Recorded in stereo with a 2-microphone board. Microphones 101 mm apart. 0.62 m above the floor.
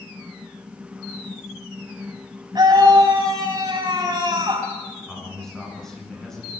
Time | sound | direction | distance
2.5 | a scream | 40° right (ahead or behind) | 5.5 m
5.1 | a man speaking | 5° left (ahead or behind) | 8 m